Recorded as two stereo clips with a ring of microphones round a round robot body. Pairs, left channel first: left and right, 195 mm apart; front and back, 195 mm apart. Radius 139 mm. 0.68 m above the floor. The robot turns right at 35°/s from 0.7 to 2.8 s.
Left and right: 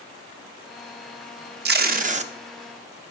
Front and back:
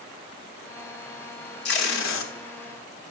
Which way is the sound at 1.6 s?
50° right.